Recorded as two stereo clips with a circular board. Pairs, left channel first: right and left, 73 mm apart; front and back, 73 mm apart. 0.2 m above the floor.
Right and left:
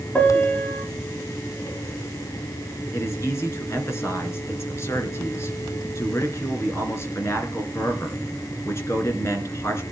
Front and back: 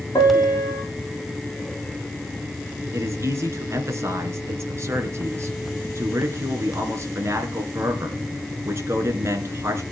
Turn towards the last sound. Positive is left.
turn(degrees=-135)